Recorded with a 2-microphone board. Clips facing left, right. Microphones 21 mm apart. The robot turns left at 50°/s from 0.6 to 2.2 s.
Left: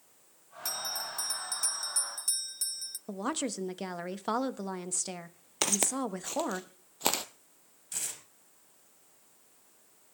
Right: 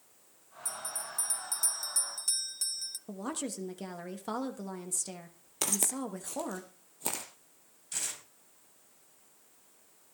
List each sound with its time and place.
0.7 s a bell: 65° left, 0.7 m; by 3.0 s 10° right, 0.7 m
3.1 s a woman speaking: 25° left (ahead or behind), 1.2 m
5.6 s footsteps: 20° left (ahead or behind), 1.0 m; by 7.2 s 50° left (ahead or behind), 1.4 m
7.9 s tearing paper: 5° right (ahead or behind), 4.5 m